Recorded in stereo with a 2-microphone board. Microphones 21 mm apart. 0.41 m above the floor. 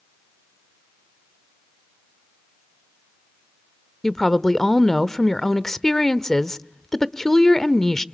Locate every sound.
4.0 s a woman speaking: 25° left (ahead or behind), 0.9 m